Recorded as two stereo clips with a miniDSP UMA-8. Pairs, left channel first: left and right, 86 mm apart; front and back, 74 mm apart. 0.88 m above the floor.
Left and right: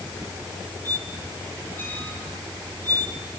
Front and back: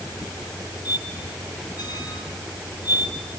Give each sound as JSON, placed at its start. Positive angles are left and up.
{"t": 0.8, "sound": "a squeak", "azimuth_deg": 25, "distance_m": 4.5}